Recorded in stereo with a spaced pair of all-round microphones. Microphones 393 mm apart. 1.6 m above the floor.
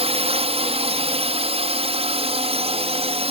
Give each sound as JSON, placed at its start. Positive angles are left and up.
{"t": 0.0, "sound": "a drone", "side_deg": -15}